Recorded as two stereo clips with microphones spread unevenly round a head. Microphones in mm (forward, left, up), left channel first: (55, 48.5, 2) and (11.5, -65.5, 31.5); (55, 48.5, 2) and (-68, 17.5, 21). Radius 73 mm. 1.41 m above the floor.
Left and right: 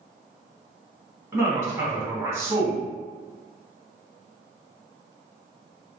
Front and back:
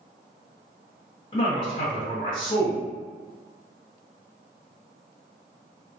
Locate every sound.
1.3 s a man speaking: 40° right, 1.5 m